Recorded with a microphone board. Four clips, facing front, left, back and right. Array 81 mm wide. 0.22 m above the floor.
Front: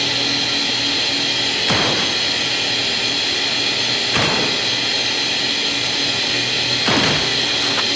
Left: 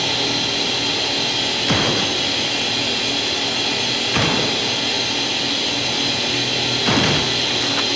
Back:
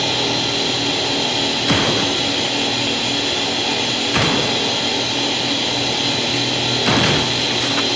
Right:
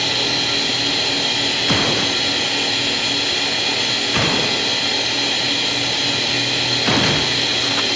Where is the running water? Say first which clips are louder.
Even, back 3 dB; 30° right, 3 m.